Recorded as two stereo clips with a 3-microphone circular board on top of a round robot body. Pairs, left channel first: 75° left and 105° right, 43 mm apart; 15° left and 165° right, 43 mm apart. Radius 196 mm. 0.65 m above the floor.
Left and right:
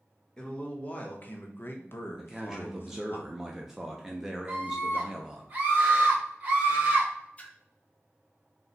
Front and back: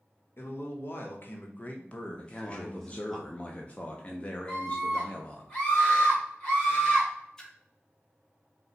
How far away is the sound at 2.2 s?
About 0.8 m.